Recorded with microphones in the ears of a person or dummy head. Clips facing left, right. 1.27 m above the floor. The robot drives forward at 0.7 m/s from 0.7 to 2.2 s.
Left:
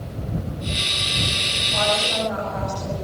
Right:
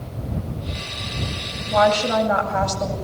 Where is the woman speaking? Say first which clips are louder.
Right 7 dB; 85° right, 8.5 m.